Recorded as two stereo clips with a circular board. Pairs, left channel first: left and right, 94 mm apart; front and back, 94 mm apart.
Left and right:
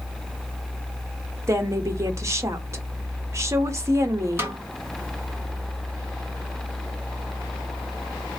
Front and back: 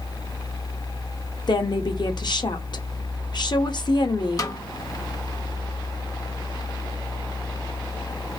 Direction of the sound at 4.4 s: 35° right.